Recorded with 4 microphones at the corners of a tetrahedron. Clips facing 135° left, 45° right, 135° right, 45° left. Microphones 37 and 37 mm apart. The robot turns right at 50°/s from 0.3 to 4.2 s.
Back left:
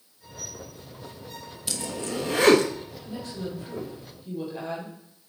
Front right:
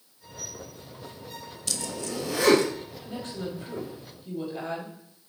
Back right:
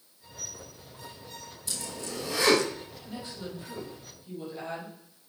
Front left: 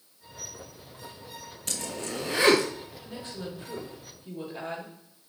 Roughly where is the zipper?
Ahead left.